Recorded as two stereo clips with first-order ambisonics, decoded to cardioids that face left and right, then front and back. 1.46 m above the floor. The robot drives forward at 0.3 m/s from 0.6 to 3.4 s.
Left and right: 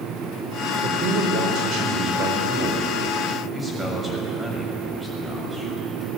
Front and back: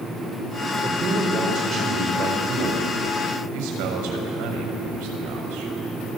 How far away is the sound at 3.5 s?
About 6.5 m.